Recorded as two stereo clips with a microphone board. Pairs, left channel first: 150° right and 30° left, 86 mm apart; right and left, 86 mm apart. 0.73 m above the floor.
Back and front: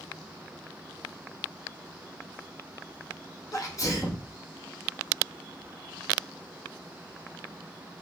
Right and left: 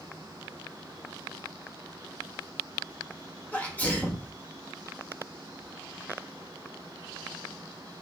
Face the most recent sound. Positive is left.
turn(degrees=-150)